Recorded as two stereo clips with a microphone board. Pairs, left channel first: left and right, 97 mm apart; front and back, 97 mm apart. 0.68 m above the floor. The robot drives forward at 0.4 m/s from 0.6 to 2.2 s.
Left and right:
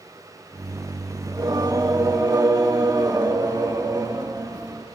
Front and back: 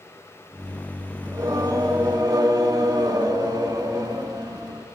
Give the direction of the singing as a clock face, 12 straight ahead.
4 o'clock.